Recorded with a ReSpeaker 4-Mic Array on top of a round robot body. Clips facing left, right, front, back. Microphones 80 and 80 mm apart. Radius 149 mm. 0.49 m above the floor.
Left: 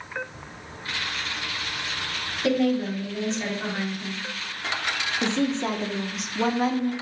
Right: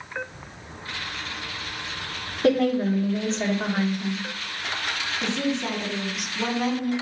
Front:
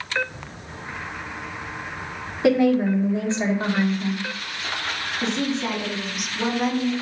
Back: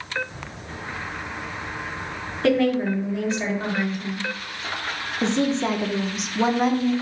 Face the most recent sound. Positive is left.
turn(degrees=135)